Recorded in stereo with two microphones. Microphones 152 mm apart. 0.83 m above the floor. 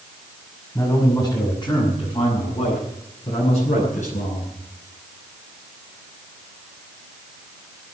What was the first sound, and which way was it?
A man speaking, 20° left (ahead or behind).